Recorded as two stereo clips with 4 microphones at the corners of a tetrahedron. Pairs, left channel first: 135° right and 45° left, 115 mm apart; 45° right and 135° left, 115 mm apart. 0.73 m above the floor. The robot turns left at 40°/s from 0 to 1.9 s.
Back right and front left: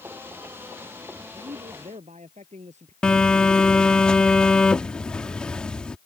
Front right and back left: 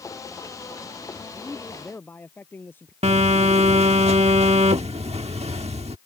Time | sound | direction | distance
1.3 | a man speaking | 50° left | ?
3.0 | a phone buzzing | 145° left | ?